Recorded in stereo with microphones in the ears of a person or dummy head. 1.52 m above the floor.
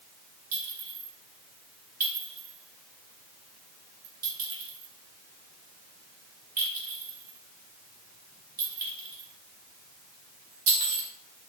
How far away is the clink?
About 1.8 m.